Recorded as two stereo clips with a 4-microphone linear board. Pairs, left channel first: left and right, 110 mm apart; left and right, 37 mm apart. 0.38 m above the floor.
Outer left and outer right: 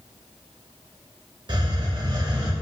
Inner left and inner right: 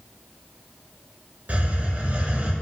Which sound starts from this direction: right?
A hiss, at 1.5 s.